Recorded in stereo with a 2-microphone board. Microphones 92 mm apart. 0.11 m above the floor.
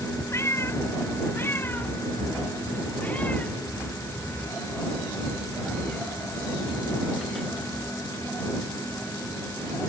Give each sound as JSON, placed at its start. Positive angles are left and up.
{"t": 0.3, "sound": "a cat meowing", "side_deg": 30}